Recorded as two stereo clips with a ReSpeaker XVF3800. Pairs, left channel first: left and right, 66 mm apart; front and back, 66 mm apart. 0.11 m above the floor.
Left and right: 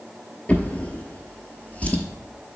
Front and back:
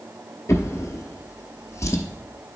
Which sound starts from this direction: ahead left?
A drawer, at 0.5 s.